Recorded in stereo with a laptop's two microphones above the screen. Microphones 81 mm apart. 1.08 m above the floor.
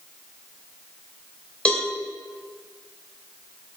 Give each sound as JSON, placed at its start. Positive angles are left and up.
{"t": 1.6, "sound": "a cowbell", "side_deg": 15, "distance_m": 2.5}